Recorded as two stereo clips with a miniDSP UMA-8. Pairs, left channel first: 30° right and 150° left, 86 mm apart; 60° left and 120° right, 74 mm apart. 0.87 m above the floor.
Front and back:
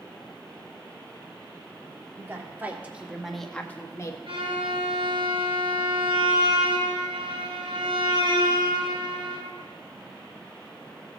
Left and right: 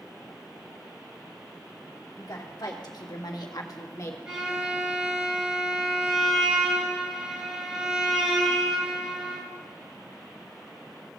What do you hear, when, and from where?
2.2 s a woman speaking: 90° left, 2 m; by 4.2 s 15° left, 1.3 m
4.3 s a violin: 160° left, 2.5 m